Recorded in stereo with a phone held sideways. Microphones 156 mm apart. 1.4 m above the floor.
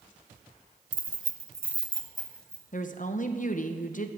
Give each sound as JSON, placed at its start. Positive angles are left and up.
{"t": 0.9, "sound": "keys jangling", "side_deg": -60, "distance_m": 0.8}
{"t": 2.7, "sound": "a woman speaking", "side_deg": 60, "distance_m": 0.8}